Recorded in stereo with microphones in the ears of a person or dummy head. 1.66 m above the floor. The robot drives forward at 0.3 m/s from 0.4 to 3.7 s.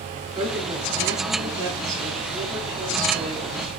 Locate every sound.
0.3 s a woman speaking: 20° right (ahead or behind), 5.5 m; by 3.7 s 25° right (ahead or behind), 4.5 m